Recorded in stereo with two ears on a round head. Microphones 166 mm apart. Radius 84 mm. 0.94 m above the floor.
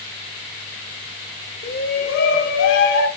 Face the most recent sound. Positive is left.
turn(degrees=80)